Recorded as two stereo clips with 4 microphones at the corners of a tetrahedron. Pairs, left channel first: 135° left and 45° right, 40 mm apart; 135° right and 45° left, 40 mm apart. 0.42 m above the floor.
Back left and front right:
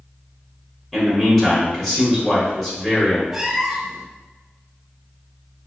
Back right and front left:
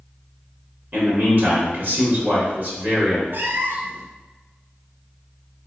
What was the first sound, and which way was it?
A man speaking, 60° left.